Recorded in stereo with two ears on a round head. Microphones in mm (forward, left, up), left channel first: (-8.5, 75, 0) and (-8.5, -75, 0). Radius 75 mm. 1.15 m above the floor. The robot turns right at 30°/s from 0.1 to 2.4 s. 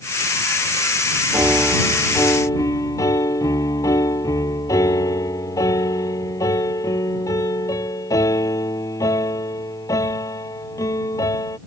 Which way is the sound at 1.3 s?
15° right.